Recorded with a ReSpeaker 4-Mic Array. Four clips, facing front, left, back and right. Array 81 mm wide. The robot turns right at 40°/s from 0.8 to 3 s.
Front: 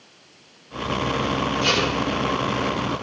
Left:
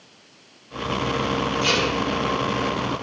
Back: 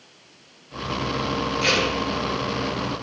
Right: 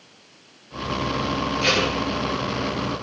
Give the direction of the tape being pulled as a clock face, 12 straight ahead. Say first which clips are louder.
Right 2 dB, back 1 dB; 5 o'clock.